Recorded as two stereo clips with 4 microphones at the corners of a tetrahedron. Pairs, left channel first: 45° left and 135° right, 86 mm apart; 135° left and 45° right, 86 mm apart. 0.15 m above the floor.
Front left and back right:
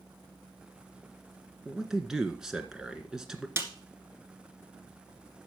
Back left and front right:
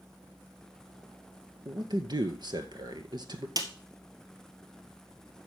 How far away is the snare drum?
About 1.8 m.